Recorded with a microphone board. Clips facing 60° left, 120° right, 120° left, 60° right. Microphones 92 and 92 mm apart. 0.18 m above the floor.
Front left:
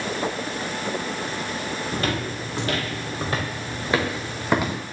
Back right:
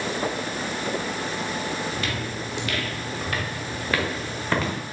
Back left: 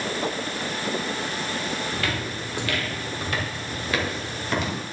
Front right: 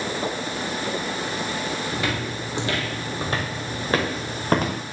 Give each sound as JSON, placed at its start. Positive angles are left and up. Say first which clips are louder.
{"t": 1.9, "sound": "footsteps", "louder": "front left 3 dB, front right 2 dB", "azimuth_deg": 15, "distance_m": 3.5}